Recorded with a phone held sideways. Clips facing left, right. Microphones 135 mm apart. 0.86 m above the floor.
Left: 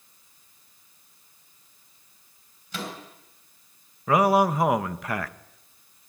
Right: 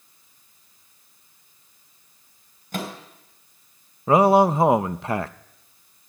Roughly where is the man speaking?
Right.